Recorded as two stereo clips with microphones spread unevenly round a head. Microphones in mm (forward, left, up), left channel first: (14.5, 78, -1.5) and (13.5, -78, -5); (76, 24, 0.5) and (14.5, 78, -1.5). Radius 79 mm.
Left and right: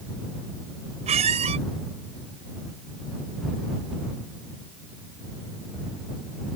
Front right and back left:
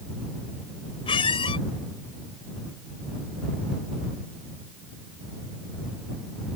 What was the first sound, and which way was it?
A squeak, 40° right.